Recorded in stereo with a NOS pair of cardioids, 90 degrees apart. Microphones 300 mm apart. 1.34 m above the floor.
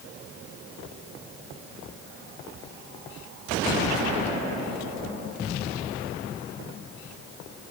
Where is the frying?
No frying in this recording.